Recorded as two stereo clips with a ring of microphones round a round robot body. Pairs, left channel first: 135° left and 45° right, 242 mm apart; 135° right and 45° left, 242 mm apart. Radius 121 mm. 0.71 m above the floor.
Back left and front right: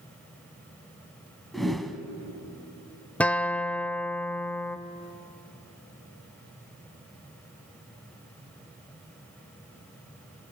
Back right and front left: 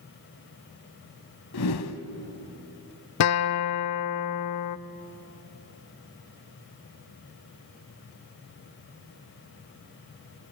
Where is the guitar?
140° right, 0.6 m.